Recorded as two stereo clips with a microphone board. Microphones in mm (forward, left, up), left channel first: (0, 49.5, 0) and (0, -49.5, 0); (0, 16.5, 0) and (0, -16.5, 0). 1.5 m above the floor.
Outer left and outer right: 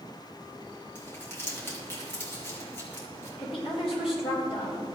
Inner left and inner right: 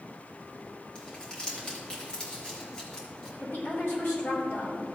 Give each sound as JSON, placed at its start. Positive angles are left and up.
{"t": 0.9, "sound": "crumpling", "side_deg": 25, "distance_m": 2.5}
{"t": 3.4, "sound": "a woman speaking", "side_deg": 75, "distance_m": 3.5}